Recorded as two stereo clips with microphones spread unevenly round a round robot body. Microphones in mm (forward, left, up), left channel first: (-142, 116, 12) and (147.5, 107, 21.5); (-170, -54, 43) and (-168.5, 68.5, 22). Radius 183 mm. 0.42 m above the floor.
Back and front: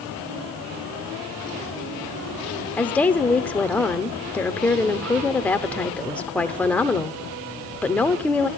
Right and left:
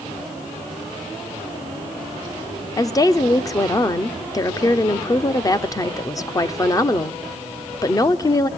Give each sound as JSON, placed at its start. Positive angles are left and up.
{"t": 2.8, "sound": "a woman speaking", "azimuth_deg": -110, "distance_m": 0.8}